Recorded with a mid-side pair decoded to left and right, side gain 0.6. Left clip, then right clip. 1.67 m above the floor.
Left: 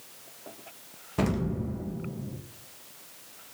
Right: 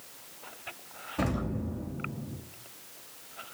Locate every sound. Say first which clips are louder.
1.2 s an explosion: left 3 dB; 40° left, 1.8 m